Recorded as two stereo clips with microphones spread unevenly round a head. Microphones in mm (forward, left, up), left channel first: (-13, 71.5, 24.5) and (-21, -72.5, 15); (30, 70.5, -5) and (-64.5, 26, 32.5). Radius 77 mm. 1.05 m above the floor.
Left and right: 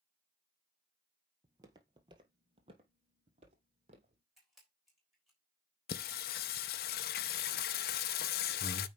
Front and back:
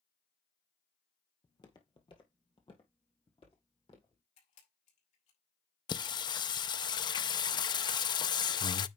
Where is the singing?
80° left, 0.5 m.